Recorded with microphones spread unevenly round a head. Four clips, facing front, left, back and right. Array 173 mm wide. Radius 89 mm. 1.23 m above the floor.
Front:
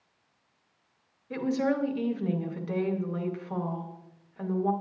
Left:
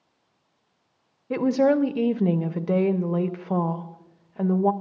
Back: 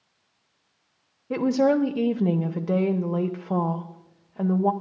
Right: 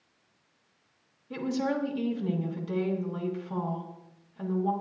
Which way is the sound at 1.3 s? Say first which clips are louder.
Left 10 dB, back 7 dB; 130° left.